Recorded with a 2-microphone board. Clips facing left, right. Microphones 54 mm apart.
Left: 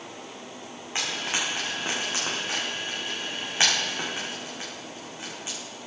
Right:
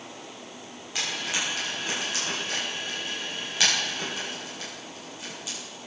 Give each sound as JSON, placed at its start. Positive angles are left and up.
{"t": 0.9, "sound": "frying", "side_deg": 30, "distance_m": 8.0}